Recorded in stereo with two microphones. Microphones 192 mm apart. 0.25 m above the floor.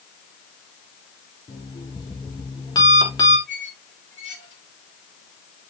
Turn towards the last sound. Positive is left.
turn(degrees=-40)  # may be behind; listen again after turning